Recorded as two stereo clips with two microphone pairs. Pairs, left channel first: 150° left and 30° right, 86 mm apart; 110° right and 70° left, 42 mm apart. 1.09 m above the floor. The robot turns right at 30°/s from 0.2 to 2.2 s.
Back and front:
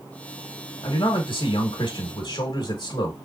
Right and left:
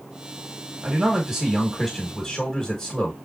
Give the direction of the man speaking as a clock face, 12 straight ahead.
8 o'clock.